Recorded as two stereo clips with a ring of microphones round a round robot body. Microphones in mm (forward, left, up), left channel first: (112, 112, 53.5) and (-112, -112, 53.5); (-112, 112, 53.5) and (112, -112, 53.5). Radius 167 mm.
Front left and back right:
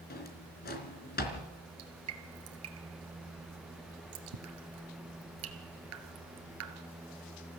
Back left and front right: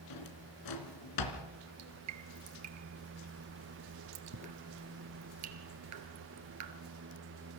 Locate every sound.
0.1 s a drawer: 110° left, 3 m
1.8 s dripping: 85° right, 1.8 m